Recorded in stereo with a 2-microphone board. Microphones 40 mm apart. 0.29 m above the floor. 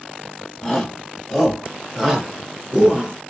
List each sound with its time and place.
0.6 s a shout: centre (ahead or behind), 2 m; by 3.1 s 25° right (ahead or behind), 1.5 m